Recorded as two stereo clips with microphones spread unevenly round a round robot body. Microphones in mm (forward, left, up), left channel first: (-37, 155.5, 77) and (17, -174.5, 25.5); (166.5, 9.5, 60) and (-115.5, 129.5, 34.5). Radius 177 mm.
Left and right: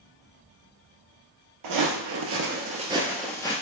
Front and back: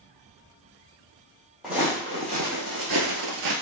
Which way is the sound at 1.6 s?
110° right.